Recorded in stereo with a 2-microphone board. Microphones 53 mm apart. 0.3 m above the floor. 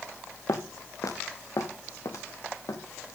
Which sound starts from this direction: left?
Footsteps, at 0.5 s.